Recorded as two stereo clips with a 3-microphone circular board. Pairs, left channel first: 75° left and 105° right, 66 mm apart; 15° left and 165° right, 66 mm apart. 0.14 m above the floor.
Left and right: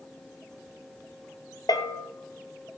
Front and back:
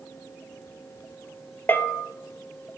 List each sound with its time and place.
1.7 s a bell: 75° left, 1.6 m